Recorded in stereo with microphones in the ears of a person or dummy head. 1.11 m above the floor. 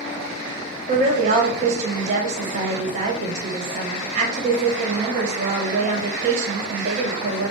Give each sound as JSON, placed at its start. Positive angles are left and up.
{"t": 0.9, "sound": "a woman speaking", "side_deg": -45, "distance_m": 1.3}